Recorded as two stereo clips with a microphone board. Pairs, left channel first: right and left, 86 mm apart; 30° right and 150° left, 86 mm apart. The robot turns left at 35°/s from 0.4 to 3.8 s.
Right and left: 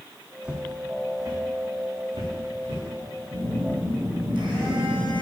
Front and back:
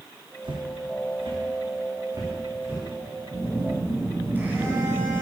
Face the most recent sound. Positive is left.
turn(degrees=85)